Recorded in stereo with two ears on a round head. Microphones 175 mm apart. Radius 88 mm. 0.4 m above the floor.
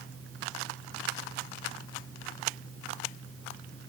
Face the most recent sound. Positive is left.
No sound to turn to.